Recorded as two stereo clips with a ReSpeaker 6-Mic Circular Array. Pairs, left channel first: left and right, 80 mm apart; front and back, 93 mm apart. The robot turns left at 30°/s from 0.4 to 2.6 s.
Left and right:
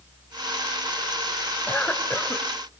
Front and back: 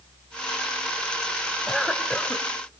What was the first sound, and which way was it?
A cough, 85° left.